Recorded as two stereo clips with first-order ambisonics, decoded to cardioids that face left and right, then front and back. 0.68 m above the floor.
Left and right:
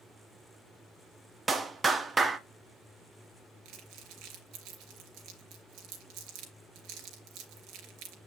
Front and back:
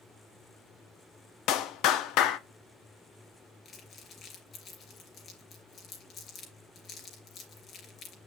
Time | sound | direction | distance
1.5 | a clap | 15° right | 0.9 m
3.6 | crumpling | 60° right | 3 m